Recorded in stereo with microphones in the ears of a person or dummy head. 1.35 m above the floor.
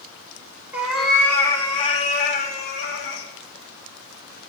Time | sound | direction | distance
0.7 | a cat meowing | 5° right (ahead or behind) | 1.5 m